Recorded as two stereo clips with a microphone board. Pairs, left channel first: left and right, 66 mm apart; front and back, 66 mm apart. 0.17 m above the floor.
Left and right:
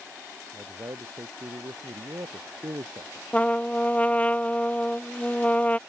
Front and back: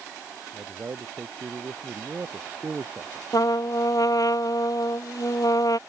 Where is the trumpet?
20° left.